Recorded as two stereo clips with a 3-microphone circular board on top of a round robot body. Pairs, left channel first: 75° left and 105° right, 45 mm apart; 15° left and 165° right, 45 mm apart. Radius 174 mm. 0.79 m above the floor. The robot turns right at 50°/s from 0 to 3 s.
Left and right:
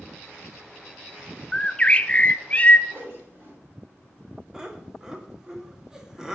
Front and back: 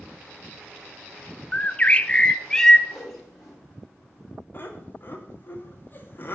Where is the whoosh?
70° right, 6 m; by 3.6 s 65° right, 6 m.